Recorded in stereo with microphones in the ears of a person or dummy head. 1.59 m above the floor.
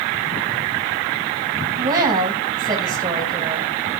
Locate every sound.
1.8 s a woman speaking: 20° right (ahead or behind), 1.7 m